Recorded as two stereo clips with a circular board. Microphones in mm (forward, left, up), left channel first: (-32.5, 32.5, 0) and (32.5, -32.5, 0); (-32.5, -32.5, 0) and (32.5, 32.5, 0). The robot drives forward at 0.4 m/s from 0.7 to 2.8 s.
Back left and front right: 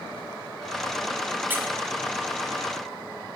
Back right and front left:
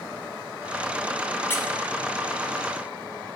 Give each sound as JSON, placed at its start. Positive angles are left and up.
{"t": 1.5, "sound": "a squeak", "azimuth_deg": -90, "distance_m": 0.5}